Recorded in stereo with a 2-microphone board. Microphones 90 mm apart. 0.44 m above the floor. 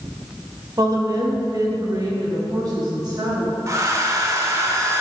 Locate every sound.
0.8 s a woman speaking: 45° right (ahead or behind), 1.4 m; by 3.6 s 50° right (ahead or behind), 4 m
3.7 s a hair dryer: 35° right (ahead or behind), 0.9 m